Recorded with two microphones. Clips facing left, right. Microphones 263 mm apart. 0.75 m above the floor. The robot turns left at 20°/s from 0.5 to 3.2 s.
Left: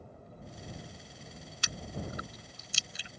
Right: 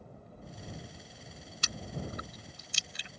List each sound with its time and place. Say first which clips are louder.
1.6 s chewing: even; 45° right (ahead or behind); by 3.1 s 65° right (ahead or behind)